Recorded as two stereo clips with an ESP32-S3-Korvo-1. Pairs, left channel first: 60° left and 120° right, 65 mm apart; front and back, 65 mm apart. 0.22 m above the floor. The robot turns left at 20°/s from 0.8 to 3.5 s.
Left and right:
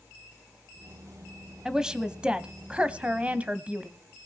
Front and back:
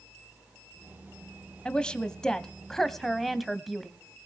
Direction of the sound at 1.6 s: 55° right.